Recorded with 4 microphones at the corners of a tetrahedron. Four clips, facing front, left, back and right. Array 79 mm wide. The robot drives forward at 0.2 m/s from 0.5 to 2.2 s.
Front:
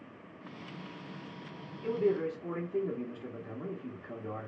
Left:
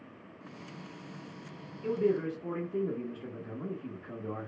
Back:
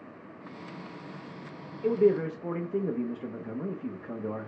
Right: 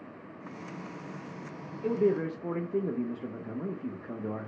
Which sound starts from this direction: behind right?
A man speaking, at 1.8 s.